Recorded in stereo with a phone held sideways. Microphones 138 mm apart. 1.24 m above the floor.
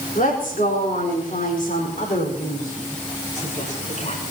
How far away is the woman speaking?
About 4 m.